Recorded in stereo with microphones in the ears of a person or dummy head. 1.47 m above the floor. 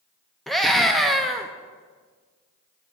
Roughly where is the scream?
Centre.